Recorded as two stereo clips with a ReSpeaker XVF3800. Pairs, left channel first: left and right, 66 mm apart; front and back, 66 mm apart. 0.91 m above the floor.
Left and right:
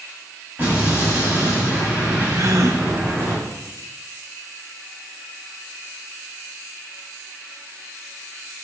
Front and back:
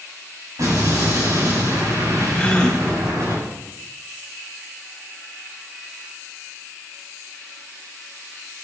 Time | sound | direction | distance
0.6 | an explosion | 155° right | 5 m
2.4 | a gasp | 70° right | 1.0 m